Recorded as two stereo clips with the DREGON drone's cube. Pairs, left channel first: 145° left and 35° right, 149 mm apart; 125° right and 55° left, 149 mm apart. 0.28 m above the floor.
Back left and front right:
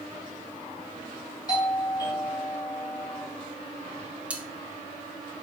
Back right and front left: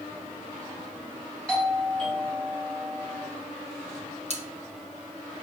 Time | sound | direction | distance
1.5 | a doorbell | 155° left | 1.8 m
4.3 | cutlery clinking | 45° left | 0.9 m